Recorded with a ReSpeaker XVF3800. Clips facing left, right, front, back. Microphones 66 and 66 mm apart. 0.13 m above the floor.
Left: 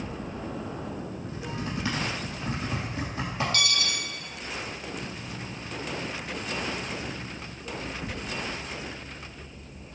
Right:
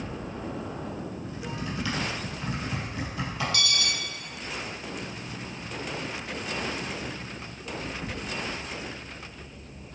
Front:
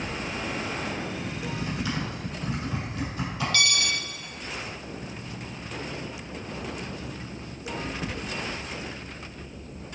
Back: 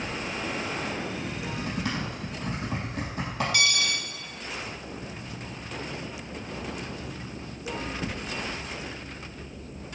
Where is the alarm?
115° left, 1.9 m.